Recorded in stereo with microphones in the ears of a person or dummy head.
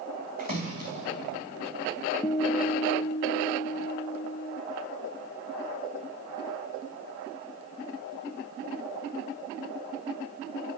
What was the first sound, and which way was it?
A splash, 55° right (ahead or behind).